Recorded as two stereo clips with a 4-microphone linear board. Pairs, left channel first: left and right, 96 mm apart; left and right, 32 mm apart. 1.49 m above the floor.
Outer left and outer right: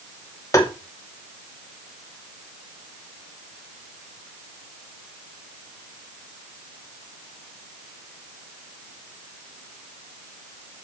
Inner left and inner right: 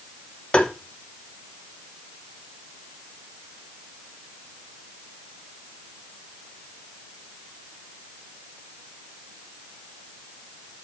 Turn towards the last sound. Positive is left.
turn(degrees=30)  # may be behind; listen again after turning